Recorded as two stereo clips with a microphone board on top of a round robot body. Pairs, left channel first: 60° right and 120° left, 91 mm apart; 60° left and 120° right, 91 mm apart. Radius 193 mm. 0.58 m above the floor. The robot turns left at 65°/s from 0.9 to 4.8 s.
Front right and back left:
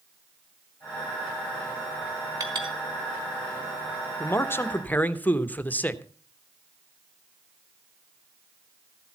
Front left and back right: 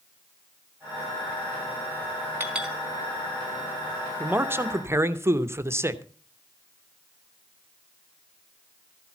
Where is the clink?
175° left, 4.5 m; by 2.8 s 150° left, 4.5 m.